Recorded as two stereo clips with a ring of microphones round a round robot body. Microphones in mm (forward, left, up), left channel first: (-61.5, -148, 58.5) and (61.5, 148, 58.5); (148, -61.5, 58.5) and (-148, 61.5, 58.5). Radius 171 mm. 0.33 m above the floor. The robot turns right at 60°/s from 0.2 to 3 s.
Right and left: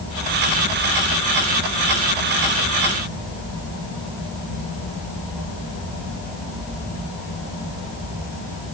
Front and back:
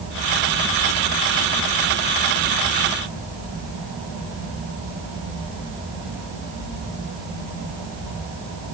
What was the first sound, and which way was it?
Only background noise.